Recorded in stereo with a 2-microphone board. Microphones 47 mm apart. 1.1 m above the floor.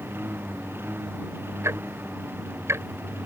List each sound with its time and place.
0.0 s a lawn mower: 55° right (ahead or behind)
1.6 s ticking: 75° right (ahead or behind)